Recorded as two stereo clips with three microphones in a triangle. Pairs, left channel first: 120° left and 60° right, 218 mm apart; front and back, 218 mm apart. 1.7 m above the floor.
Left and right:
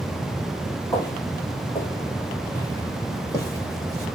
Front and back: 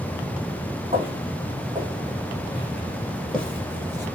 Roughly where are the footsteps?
Behind.